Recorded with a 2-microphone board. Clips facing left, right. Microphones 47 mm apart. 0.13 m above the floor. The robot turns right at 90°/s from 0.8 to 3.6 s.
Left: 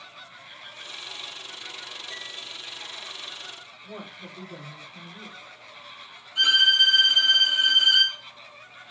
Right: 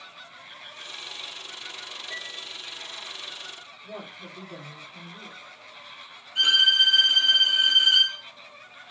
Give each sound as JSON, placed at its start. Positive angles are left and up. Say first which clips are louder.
{"t": 2.1, "sound": "a piano", "louder": "right 4 dB", "azimuth_deg": -170, "distance_m": 3.0}
{"t": 3.8, "sound": "a woman speaking", "louder": "right 1 dB", "side_deg": -15, "distance_m": 2.5}
{"t": 6.3, "sound": "a violin", "louder": "left 1 dB", "side_deg": -30, "distance_m": 3.0}